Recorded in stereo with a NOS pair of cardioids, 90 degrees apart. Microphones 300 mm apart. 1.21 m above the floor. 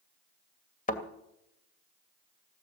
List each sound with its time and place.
0.9 s a thud: 25° left, 2 m